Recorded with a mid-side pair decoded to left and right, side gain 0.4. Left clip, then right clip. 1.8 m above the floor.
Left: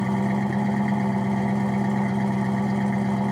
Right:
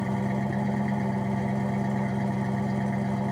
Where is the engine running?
40° left, 1.6 m.